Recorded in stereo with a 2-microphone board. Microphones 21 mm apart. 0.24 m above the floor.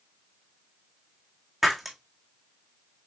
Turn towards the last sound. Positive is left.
turn(degrees=-5)  # may be behind; listen again after turning